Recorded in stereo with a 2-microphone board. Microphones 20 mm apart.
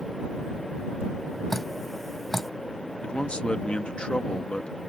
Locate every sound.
1.5 s dripping: 10° left (ahead or behind)
3.0 s a man speaking: 50° left (ahead or behind)